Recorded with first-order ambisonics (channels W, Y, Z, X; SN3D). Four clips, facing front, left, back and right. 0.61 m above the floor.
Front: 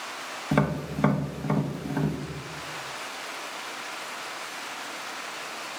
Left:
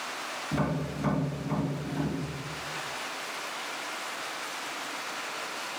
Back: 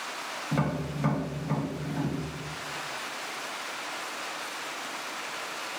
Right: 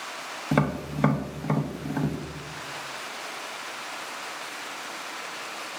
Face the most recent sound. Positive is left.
turn(degrees=-55)